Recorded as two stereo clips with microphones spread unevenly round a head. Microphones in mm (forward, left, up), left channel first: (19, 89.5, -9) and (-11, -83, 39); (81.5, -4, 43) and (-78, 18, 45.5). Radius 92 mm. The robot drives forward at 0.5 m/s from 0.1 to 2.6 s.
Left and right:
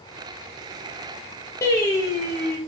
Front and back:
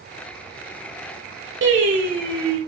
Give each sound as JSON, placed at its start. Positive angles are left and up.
{"t": 1.6, "sound": "singing", "azimuth_deg": 160, "distance_m": 2.5}